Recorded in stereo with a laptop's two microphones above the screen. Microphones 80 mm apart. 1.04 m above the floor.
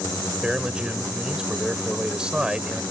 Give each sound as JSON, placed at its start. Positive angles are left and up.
{"t": 0.4, "sound": "a man speaking", "side_deg": -10}